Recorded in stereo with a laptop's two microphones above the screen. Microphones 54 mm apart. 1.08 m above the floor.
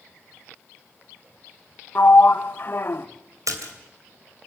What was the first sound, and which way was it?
A sliding door, 40° left (ahead or behind).